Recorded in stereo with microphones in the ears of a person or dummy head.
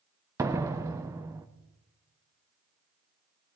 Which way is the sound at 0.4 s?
10° right (ahead or behind).